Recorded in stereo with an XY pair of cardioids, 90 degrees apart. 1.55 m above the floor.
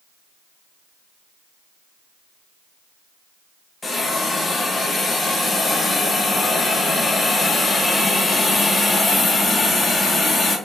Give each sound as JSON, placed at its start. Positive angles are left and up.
{"t": 3.8, "sound": "a hiss", "azimuth_deg": 35, "distance_m": 1.4}